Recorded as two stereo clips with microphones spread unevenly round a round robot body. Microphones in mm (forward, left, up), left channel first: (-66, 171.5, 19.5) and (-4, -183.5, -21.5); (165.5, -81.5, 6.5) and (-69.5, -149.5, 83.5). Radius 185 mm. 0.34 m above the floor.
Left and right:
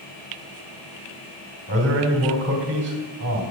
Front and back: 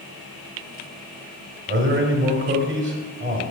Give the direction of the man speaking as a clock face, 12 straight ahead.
4 o'clock.